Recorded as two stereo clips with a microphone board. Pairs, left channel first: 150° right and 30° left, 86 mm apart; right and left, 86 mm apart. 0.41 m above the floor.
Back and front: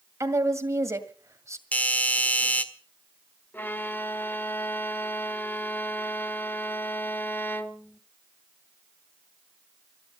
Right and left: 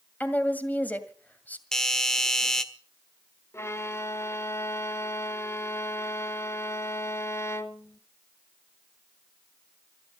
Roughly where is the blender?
I don't hear a blender.